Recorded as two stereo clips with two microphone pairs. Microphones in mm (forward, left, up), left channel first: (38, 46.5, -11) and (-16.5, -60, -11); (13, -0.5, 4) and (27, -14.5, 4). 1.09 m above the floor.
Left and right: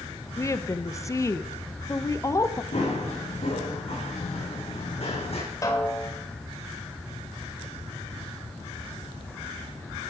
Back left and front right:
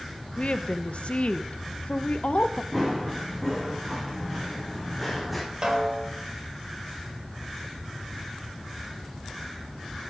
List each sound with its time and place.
0.4 s a woman speaking: 125° left, 0.6 m
2.7 s running footsteps: 35° left, 4.5 m
5.6 s a snare drum: straight ahead, 1.9 m